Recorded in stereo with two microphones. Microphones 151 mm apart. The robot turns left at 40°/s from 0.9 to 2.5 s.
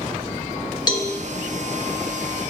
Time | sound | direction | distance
0.9 | a cowbell | 30° left (ahead or behind) | 0.7 m